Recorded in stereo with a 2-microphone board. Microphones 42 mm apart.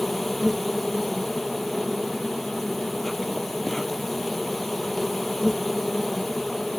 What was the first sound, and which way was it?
An insect, 5° left (ahead or behind).